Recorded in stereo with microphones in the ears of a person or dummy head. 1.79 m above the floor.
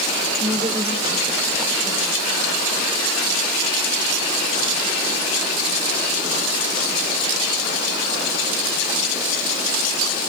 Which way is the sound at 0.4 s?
25° right (ahead or behind).